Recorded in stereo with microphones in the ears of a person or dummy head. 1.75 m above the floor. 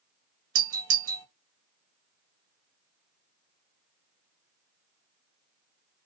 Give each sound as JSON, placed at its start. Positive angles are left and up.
{"t": 0.6, "sound": "a doorbell", "side_deg": -60, "distance_m": 1.0}